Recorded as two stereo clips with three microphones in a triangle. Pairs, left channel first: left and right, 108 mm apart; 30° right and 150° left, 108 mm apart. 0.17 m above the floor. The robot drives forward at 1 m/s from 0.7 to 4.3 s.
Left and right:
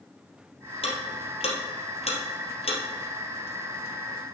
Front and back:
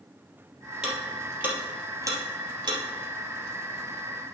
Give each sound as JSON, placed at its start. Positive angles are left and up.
{"t": 0.8, "sound": "ticking", "azimuth_deg": 65, "distance_m": 3.0}